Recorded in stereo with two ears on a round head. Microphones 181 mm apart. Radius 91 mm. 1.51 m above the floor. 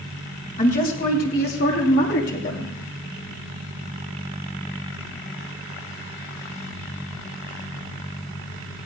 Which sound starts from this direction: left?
A woman speaking, at 0.6 s.